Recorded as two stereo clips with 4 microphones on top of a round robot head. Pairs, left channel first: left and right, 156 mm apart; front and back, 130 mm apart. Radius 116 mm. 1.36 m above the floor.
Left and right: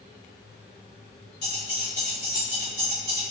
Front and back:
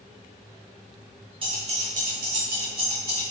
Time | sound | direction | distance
1.4 | keys jangling | 135° left | 1.1 m